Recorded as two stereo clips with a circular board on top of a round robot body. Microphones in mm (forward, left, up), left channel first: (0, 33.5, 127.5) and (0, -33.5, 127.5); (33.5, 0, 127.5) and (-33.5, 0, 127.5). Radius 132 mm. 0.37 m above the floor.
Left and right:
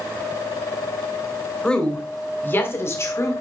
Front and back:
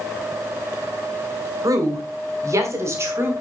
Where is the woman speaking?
170° left, 2.5 m; by 3.3 s 130° left, 3.5 m.